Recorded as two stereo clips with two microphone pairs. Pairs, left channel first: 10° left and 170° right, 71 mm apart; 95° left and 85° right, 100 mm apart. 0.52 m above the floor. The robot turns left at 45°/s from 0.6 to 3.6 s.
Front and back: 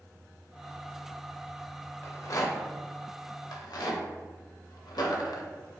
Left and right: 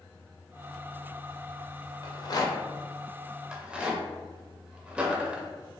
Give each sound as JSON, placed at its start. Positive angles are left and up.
{"t": 2.0, "sound": "a rattle", "azimuth_deg": 65, "distance_m": 0.5}